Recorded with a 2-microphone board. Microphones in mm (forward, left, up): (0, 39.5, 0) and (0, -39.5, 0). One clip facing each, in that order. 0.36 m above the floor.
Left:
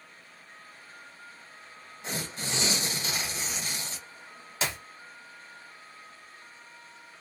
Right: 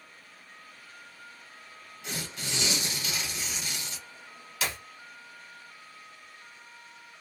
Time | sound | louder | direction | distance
2.0 | tearing paper | left 2 dB | 35° left (ahead or behind) | 0.7 m
4.6 | a clap | left 1 dB | 30° left (ahead or behind) | 0.9 m